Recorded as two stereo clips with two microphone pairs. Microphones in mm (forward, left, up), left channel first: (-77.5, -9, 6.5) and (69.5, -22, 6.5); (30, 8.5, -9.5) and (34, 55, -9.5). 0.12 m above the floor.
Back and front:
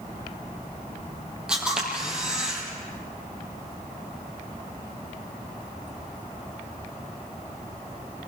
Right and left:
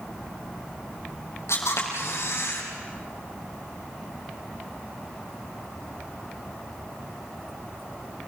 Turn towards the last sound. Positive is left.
turn(degrees=-90)